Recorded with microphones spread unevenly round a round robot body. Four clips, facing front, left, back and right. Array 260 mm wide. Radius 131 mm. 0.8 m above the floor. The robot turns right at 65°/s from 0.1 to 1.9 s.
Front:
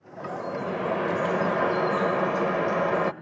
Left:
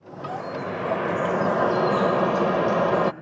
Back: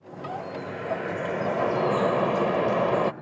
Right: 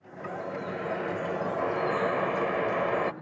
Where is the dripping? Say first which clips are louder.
Left 4 dB, front 3 dB; 5° left, 0.6 m; by 3.1 s 115° left, 0.6 m.